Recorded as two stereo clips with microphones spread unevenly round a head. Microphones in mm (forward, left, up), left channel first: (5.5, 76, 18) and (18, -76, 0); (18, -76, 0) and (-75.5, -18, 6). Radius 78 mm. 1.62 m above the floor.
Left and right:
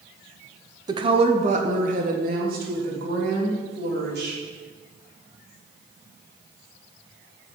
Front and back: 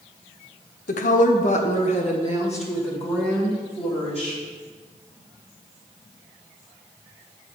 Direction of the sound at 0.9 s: 20° right.